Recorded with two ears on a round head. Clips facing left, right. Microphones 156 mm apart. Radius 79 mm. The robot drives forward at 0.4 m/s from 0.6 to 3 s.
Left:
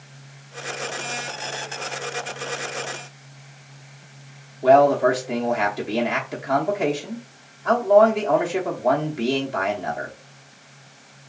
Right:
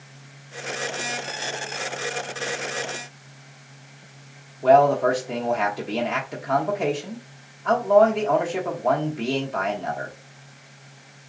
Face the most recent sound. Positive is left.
turn(degrees=10)  # may be behind; listen again after turning